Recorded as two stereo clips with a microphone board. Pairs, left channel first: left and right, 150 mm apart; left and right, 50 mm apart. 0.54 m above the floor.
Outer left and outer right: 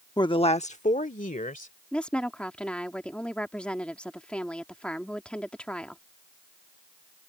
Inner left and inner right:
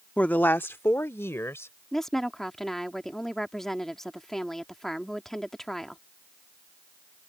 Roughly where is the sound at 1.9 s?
Centre.